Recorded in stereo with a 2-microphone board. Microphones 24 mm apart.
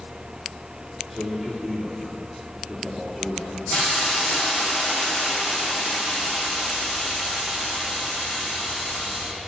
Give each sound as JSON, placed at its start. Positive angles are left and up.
{"t": 1.1, "sound": "a man speaking", "side_deg": 0, "distance_m": 5.0}
{"t": 3.7, "sound": "a hiss", "side_deg": 60, "distance_m": 6.0}